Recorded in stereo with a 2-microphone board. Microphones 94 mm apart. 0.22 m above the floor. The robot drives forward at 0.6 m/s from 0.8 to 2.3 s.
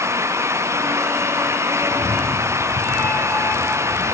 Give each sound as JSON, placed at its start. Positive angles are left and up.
{"t": 1.8, "sound": "a cat meowing", "side_deg": 10, "distance_m": 2.0}